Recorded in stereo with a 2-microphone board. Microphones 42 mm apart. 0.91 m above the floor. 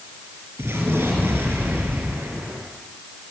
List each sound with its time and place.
0.6 s an explosion: 75° right (ahead or behind), 5.5 m